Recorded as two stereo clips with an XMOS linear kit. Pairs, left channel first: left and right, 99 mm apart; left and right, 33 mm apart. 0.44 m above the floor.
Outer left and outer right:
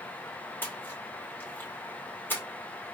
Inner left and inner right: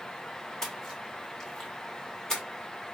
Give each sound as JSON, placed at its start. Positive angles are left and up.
{"t": 0.6, "sound": "a splash", "side_deg": 20, "distance_m": 1.2}